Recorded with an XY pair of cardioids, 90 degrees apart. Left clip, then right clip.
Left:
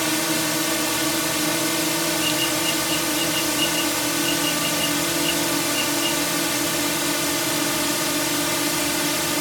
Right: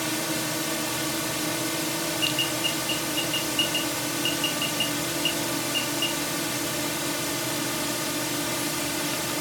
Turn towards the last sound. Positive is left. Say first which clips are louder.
# left 6 dB
turn(degrees=45)